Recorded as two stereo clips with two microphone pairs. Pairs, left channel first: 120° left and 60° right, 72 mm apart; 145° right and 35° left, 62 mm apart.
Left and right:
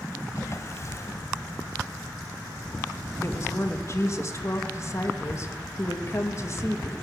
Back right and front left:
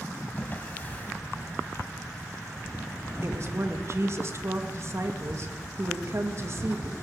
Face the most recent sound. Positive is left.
turn(degrees=75)